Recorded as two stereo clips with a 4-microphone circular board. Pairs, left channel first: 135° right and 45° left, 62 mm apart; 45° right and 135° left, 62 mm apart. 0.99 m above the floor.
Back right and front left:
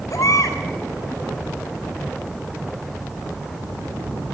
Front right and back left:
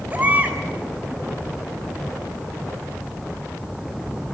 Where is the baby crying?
165° right, 3.5 m.